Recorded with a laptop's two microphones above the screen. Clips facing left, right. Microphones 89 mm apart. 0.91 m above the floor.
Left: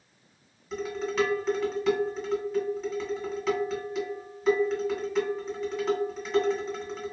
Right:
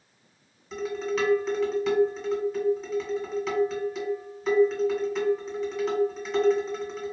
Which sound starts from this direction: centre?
Dishes clattering, at 0.7 s.